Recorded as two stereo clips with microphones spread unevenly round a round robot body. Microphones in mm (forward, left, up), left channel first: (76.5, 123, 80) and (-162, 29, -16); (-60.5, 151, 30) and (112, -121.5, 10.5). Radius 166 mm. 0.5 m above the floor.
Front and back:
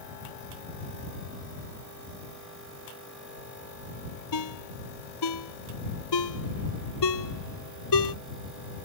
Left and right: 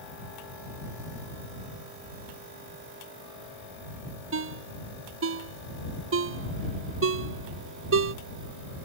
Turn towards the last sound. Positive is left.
turn(degrees=-5)